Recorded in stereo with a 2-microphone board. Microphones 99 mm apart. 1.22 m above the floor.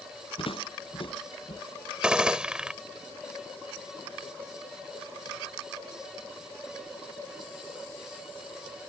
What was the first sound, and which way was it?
Footsteps, 65° left (ahead or behind).